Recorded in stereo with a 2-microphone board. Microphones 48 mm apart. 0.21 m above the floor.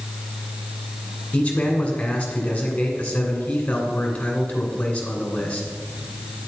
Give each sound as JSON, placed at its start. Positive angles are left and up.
{"t": 1.3, "sound": "a man speaking", "side_deg": 25, "distance_m": 2.0}